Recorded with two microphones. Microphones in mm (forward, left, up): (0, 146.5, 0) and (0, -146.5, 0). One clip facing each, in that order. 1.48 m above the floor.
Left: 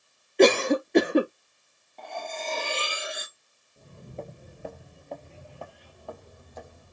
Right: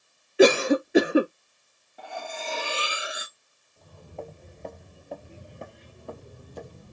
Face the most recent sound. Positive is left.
turn(degrees=-45)  # may be behind; listen again after turning